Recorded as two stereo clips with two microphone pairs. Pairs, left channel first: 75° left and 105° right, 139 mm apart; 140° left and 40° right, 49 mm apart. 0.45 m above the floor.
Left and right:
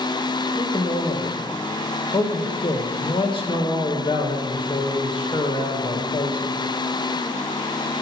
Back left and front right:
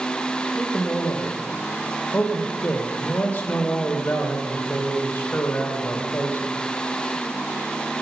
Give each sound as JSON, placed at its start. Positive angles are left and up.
{"t": 0.6, "sound": "a man speaking", "azimuth_deg": 110, "distance_m": 1.6}